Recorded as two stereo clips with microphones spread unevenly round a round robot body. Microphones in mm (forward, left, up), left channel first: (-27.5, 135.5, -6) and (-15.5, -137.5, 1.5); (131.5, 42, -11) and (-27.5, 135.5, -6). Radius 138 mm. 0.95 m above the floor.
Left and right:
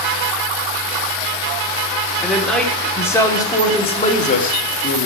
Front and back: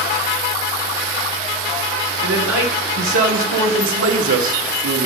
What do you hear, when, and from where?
2.2 s a man speaking: 175° right, 2.5 m; by 5.1 s 145° left, 2 m